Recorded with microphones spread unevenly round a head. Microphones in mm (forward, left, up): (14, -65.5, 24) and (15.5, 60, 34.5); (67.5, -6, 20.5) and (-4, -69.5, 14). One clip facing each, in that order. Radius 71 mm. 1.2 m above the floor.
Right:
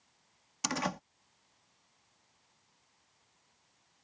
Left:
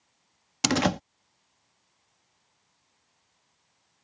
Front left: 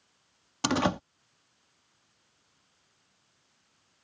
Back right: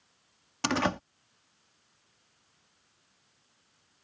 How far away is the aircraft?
No aircraft in this recording.